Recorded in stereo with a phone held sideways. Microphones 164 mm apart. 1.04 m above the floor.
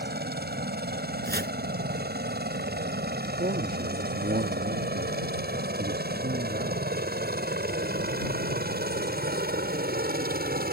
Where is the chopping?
75° right (ahead or behind).